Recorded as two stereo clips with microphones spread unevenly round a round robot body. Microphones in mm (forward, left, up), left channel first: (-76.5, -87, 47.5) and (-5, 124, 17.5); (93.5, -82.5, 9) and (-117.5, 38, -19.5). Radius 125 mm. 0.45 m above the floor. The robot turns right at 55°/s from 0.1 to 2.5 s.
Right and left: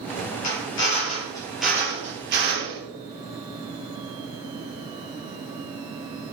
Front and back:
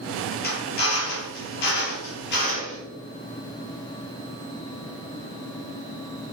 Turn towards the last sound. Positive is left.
turn(degrees=30)